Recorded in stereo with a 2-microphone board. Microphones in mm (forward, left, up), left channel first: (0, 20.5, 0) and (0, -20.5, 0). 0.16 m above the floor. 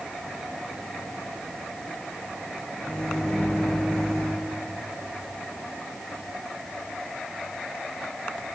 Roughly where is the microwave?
Centre.